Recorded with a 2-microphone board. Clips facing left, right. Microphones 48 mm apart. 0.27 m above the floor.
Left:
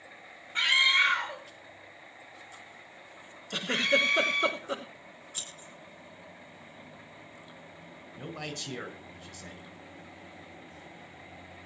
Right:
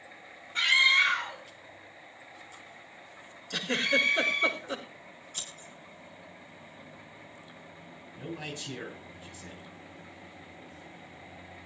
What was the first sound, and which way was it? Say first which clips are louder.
A scream: right 1 dB; 20° left (ahead or behind).